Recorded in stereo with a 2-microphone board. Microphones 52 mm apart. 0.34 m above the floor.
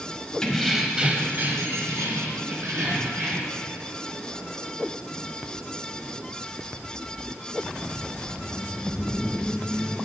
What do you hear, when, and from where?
0.4 s keys jangling: 15° left (ahead or behind), 1.2 m; by 3.6 s 80° right, 3.5 m